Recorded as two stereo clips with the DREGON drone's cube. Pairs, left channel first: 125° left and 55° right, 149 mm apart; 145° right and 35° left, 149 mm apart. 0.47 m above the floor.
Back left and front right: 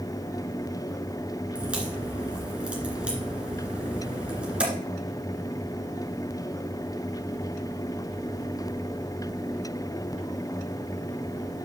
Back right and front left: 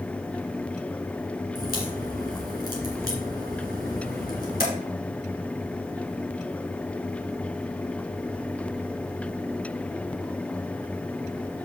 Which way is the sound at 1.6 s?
140° right.